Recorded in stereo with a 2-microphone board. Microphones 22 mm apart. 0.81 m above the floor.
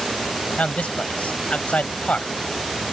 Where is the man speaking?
75° left (ahead or behind).